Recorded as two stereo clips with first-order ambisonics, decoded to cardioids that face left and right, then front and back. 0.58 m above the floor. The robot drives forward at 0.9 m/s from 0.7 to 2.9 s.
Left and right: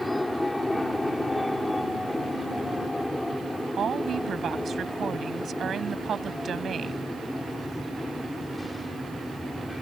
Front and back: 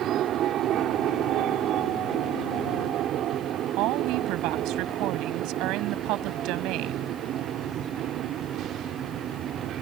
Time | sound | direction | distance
0.0 | an aircraft | 170° left | ?
3.7 | a woman speaking | 155° right | ?